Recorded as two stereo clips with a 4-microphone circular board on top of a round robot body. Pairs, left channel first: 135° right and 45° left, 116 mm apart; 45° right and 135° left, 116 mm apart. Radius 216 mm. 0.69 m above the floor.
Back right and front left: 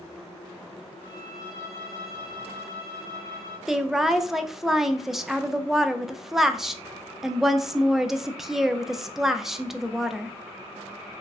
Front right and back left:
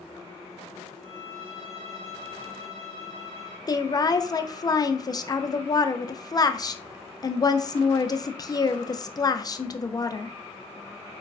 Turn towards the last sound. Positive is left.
turn(degrees=-40)